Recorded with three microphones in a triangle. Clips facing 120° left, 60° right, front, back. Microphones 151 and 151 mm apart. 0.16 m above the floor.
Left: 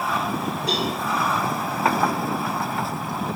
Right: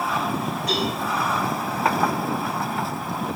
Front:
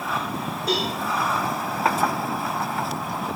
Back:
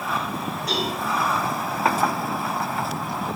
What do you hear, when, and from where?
0.7 s a cowbell: 60° left, 4 m